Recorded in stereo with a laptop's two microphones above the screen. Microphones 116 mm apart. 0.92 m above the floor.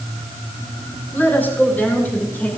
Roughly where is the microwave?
I don't hear a microwave.